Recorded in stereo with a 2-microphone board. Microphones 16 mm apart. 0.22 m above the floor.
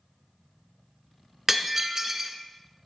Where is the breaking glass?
20° right (ahead or behind), 1.2 m.